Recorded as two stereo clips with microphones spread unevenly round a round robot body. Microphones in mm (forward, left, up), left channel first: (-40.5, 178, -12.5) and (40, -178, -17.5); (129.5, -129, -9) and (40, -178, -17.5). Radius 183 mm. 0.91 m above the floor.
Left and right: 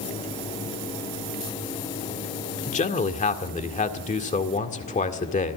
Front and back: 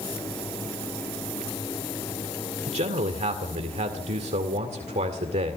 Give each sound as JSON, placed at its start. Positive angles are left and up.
{"t": 2.7, "sound": "a man speaking", "azimuth_deg": 175, "distance_m": 1.9}